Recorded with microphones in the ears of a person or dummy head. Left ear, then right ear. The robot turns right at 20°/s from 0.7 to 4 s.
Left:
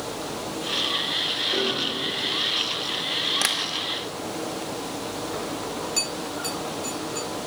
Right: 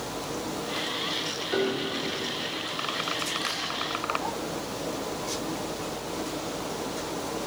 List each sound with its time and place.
1.5 s a piano: 45° right (ahead or behind), 2.5 m; by 2.0 s 35° right (ahead or behind), 2.5 m
3.4 s tapping: 35° left (ahead or behind), 1.1 m; by 3.6 s 30° left (ahead or behind), 1.1 m